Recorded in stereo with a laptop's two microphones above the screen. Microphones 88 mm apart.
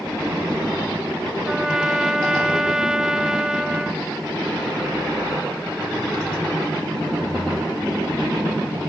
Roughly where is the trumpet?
Centre.